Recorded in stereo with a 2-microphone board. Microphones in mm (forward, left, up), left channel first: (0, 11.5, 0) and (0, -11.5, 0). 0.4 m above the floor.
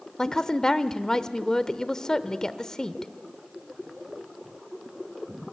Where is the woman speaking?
25° left (ahead or behind), 1.0 m.